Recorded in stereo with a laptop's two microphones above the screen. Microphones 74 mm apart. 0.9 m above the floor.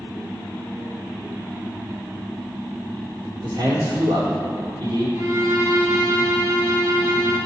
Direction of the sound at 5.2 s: 35° right (ahead or behind).